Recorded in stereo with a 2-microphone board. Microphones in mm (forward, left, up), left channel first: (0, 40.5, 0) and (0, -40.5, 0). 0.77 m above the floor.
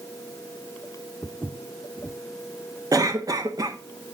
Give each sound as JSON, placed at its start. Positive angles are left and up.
{"t": 1.2, "sound": "footsteps", "side_deg": 10, "distance_m": 0.9}
{"t": 2.9, "sound": "a cough", "side_deg": -50, "distance_m": 1.1}